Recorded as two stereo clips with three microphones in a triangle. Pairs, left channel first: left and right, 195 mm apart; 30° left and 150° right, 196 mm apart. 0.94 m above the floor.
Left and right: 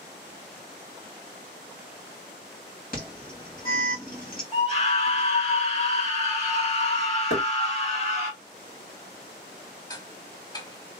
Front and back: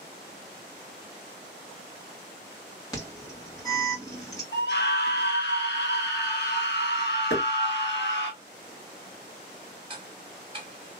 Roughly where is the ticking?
Behind left.